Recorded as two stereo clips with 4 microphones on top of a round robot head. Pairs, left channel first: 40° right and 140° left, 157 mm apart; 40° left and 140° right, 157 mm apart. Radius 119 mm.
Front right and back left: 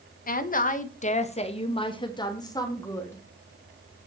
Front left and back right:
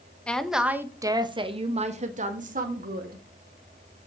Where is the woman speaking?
40° right, 1.4 m; by 3.2 s 115° right, 2.5 m.